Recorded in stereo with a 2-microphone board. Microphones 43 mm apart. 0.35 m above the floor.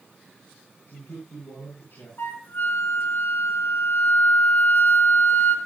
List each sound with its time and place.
0.9 s a man speaking: 75° left (ahead or behind), 7 m
2.2 s a flute: 60° left (ahead or behind), 3 m